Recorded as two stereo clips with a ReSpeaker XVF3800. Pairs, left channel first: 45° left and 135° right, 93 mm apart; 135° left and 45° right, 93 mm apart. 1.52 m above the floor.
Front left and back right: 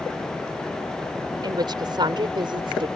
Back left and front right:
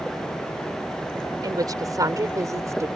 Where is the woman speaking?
95° right; by 2.9 s 100° right.